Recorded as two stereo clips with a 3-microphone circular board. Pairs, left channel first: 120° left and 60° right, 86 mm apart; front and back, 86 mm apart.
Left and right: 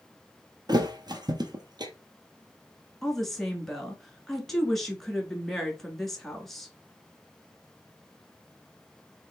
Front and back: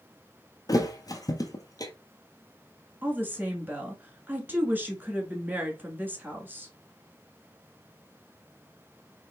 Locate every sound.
0.7 s a thud: 35° right, 0.8 m
3.0 s a woman speaking: 160° right, 1.3 m